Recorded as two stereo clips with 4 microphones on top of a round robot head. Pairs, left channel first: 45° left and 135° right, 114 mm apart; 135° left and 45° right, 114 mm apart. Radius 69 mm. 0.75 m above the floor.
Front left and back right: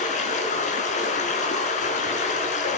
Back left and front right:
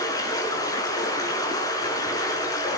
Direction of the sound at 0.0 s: 75° left.